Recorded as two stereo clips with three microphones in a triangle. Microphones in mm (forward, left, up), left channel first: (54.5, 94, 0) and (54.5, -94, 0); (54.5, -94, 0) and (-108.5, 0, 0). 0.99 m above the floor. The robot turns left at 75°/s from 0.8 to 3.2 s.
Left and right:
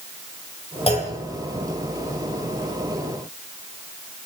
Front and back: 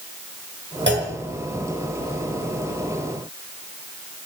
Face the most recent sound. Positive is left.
turn(degrees=-30)